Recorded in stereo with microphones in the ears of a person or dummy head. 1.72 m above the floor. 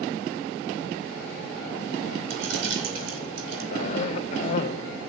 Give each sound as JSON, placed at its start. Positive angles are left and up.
{"t": 2.3, "sound": "keys jangling", "side_deg": -75, "distance_m": 4.5}
{"t": 3.7, "sound": "a cough", "side_deg": 40, "distance_m": 1.1}